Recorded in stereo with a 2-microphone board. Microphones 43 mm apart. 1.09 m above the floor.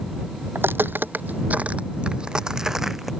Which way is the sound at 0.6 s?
60° right (ahead or behind).